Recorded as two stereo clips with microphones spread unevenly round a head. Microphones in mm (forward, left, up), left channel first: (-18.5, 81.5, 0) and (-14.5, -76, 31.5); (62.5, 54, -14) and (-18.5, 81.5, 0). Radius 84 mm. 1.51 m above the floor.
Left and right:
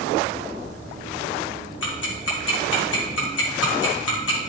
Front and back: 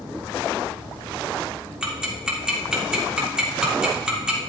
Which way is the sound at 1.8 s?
80° left.